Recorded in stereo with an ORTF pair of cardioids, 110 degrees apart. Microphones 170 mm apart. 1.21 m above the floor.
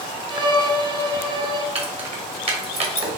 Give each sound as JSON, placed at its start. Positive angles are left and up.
{"t": 0.3, "sound": "a violin", "azimuth_deg": -25, "distance_m": 0.8}
{"t": 1.8, "sound": "keys jangling", "azimuth_deg": -35, "distance_m": 1.3}